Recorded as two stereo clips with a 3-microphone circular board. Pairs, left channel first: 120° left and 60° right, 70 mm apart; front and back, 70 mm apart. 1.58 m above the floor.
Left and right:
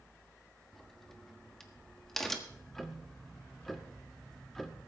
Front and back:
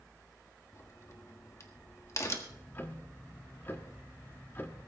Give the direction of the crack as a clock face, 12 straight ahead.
11 o'clock.